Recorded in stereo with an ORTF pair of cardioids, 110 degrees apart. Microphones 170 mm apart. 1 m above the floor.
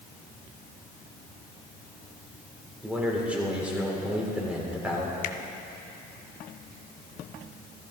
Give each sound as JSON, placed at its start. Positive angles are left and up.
{"t": 2.8, "sound": "a man speaking", "azimuth_deg": -10, "distance_m": 3.5}
{"t": 5.2, "sound": "a finger snap", "azimuth_deg": 55, "distance_m": 0.8}